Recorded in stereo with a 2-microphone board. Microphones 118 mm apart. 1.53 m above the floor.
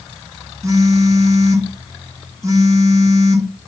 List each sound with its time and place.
0.6 s a phone buzzing: 25° right (ahead or behind), 0.8 m